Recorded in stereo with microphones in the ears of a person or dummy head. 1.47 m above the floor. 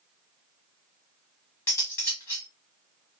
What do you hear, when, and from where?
1.7 s cutlery clinking: 15° left (ahead or behind), 1.3 m